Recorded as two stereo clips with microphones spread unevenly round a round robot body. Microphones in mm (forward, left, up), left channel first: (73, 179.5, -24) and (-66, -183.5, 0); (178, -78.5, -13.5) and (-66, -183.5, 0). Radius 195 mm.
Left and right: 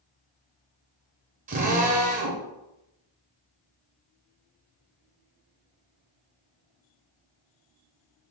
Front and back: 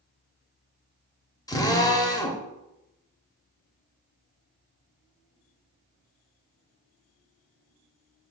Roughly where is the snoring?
I don't hear snoring.